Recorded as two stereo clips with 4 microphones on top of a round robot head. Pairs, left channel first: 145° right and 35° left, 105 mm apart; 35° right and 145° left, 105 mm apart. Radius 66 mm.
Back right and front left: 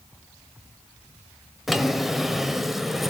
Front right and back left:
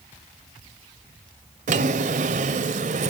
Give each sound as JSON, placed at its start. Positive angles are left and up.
{"t": 1.7, "sound": "a drawer", "azimuth_deg": 125, "distance_m": 0.9}